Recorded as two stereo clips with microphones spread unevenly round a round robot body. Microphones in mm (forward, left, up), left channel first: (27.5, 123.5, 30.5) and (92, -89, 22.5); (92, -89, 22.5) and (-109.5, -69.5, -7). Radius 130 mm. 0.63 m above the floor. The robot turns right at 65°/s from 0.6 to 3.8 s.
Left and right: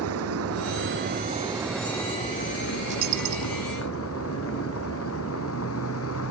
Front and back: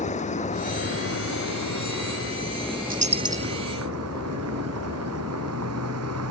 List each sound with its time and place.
0.0 s a vehicle: 60° right; by 6.3 s 150° left
2.9 s a dropped coin: 140° right; by 3.6 s 95° right